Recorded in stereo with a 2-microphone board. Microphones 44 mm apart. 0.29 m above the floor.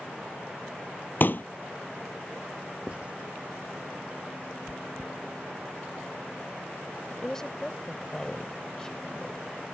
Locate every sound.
1.2 s a pop: 50° left (ahead or behind)
2.9 s writing: 30° right (ahead or behind)
4.7 s chewing: 25° right (ahead or behind)
7.1 s a woman speaking: 15° left (ahead or behind)